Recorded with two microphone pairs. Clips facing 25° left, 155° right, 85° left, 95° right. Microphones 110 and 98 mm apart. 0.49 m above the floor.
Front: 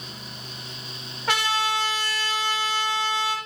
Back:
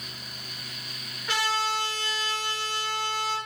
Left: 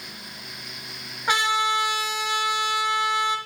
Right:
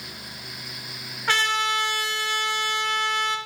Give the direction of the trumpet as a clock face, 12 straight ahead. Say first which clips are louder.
Front 3 dB, left 2 dB; 12 o'clock.